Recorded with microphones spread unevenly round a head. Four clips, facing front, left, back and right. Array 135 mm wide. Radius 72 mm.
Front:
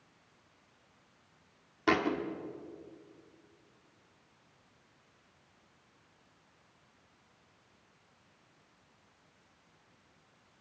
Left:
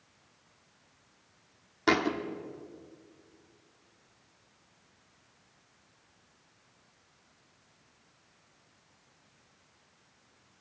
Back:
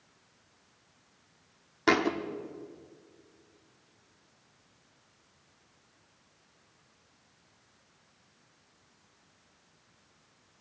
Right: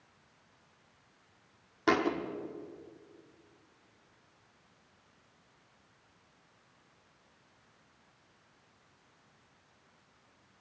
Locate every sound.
1.9 s a thud: 175° right, 1.6 m